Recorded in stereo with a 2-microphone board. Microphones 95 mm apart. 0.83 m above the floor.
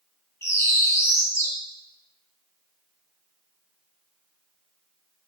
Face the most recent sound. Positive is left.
turn(degrees=30)  # may be behind; listen again after turning